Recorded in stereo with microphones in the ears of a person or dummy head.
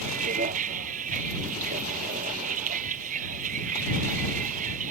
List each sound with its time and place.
0.0 s a vehicle: 40° right (ahead or behind)